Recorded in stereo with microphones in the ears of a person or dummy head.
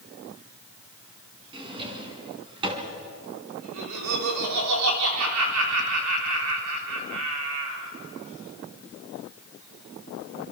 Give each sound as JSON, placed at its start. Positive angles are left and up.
{"t": 1.5, "sound": "a drawer", "side_deg": -25, "distance_m": 3.5}
{"t": 3.6, "sound": "laughter", "side_deg": -85, "distance_m": 4.0}